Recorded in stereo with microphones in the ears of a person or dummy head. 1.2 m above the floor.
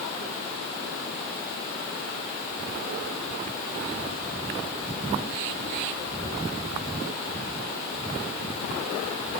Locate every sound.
Only background noise.